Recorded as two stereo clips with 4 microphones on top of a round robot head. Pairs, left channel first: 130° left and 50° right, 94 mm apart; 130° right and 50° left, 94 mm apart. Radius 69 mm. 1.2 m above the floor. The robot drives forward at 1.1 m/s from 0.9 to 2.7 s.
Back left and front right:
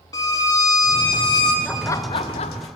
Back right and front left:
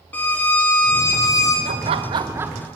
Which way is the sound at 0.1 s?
165° left.